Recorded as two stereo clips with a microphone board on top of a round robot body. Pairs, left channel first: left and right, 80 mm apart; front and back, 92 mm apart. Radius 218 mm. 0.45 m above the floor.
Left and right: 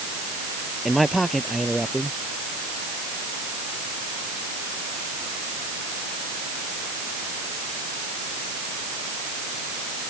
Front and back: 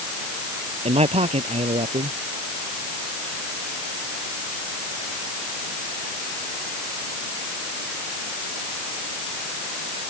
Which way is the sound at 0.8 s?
Straight behind.